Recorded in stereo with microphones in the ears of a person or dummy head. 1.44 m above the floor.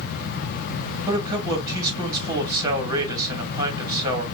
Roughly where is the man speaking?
Centre.